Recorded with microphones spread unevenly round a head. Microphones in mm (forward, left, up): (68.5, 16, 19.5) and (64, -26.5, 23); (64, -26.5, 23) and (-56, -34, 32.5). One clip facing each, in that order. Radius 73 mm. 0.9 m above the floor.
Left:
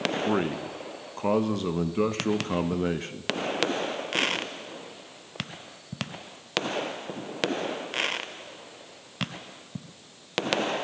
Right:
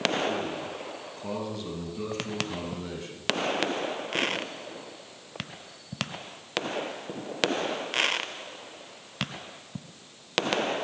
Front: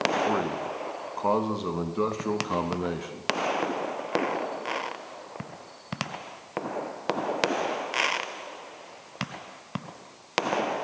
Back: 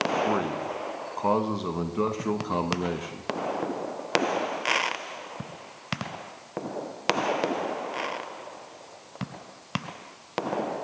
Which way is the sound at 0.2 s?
90° left.